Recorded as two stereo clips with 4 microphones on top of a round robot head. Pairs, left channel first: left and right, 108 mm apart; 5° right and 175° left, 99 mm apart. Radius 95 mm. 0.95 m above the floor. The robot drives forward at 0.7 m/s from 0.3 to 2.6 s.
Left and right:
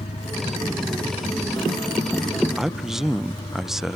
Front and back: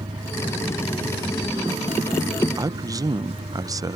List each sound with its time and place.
0.0 s a vehicle: 130° left; by 4.0 s 140° left
2.6 s a man speaking: 175° right